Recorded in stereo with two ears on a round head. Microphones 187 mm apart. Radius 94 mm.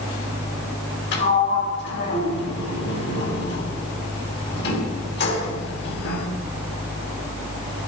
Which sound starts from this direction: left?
A sliding door, at 1.1 s.